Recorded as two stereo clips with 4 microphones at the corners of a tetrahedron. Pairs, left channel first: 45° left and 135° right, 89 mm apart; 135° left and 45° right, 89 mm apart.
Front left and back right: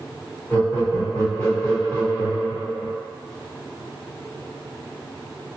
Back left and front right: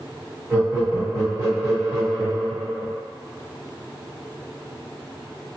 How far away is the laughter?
About 1.4 m.